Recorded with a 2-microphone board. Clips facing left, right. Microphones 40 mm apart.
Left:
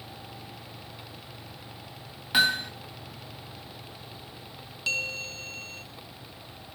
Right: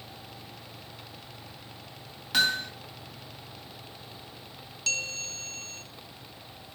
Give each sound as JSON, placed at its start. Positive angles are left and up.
{"t": 2.3, "sound": "hammering", "side_deg": 20, "distance_m": 1.3}
{"t": 4.9, "sound": "a bell", "side_deg": 20, "distance_m": 0.7}